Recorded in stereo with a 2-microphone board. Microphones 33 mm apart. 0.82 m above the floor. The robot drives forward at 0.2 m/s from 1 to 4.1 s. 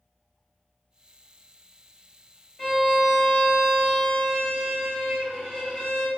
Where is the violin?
30° left (ahead or behind), 1.6 m; by 6.1 s 25° left (ahead or behind), 1.8 m.